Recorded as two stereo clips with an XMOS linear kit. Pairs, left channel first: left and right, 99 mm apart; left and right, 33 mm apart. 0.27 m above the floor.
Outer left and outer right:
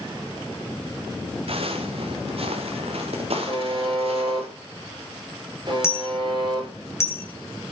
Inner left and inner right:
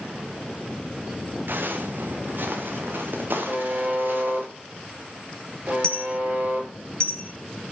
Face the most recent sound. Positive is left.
turn(degrees=25)  # may be behind; listen again after turning